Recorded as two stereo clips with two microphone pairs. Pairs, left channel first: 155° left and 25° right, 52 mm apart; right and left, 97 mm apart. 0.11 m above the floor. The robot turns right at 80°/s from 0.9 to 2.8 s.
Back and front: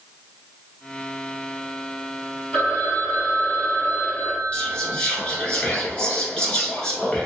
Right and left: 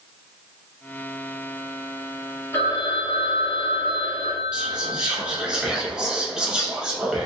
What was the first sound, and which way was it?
A phone ringing, 150° right.